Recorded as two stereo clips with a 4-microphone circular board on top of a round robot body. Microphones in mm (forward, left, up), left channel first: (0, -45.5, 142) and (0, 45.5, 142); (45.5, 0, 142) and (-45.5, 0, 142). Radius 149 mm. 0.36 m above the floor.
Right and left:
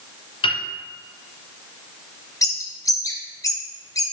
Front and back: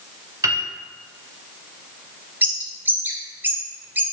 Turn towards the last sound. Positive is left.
turn(degrees=-120)